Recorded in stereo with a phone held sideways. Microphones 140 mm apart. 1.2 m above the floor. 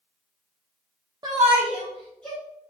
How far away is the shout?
About 0.5 m.